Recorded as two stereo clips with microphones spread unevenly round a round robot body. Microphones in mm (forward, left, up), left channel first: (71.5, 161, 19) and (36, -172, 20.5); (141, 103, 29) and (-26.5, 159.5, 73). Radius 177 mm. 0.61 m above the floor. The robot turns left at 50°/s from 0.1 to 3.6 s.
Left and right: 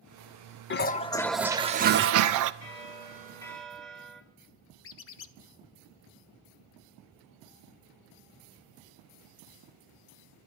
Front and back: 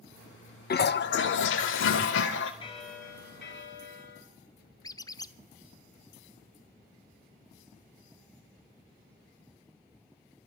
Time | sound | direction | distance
0.7 | a toilet flushing | 25° left | 0.5 m
2.6 | a bell | 45° left | 1.8 m
4.8 | a squeak | 40° left | 0.6 m